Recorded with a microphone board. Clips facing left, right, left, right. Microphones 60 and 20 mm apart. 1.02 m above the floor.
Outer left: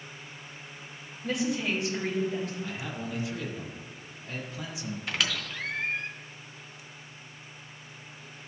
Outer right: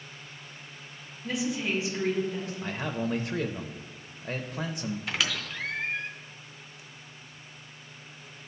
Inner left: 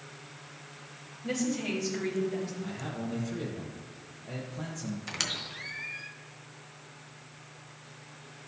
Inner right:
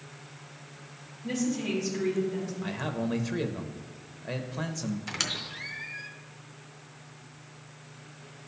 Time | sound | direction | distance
1.2 | a woman speaking | 75° left (ahead or behind) | 2.5 m
2.6 | a man speaking | 45° right (ahead or behind) | 0.5 m
5.1 | a squeak | centre (ahead or behind) | 0.5 m